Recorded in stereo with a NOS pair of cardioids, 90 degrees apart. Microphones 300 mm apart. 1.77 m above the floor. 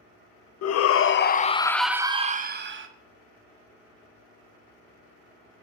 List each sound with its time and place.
0.6 s a shout: 60° left, 0.8 m; by 2.9 s 45° right, 0.8 m